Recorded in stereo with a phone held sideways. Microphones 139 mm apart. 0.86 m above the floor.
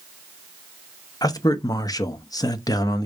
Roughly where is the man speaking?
Left.